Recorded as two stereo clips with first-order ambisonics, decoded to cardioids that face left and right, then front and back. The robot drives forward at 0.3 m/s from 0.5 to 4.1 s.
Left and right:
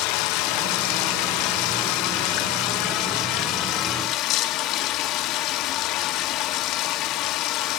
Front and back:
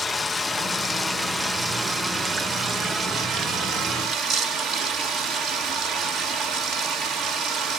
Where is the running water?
80° left, 1.2 m; by 7.8 s 125° left, 1.5 m.